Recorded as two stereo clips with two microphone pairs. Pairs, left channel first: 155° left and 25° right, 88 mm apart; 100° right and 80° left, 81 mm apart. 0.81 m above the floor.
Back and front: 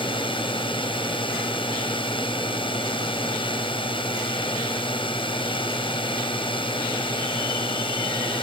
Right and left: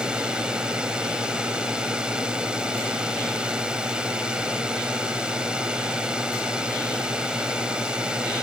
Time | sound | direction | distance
0.0 | a drone | 160° left | ?